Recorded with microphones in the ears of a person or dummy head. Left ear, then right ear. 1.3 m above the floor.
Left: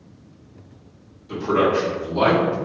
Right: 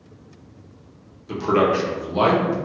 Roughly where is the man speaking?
Right.